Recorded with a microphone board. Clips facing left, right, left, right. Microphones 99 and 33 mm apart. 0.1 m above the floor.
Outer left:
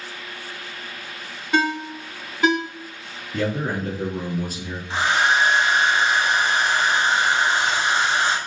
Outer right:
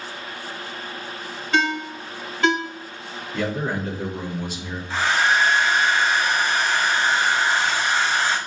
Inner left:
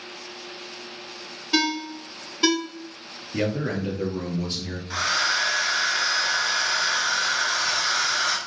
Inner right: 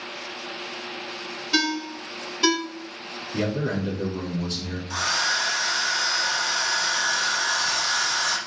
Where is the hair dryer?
20° left (ahead or behind), 1.0 m.